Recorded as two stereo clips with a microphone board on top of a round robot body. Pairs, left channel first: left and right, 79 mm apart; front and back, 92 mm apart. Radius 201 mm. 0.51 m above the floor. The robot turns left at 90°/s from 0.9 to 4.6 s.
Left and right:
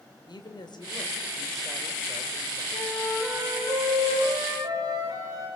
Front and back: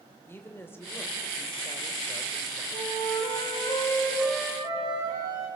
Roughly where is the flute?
Ahead left.